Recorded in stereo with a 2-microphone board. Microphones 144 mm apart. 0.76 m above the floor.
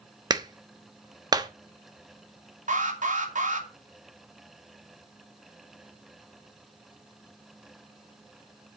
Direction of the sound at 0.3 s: 25° right (ahead or behind).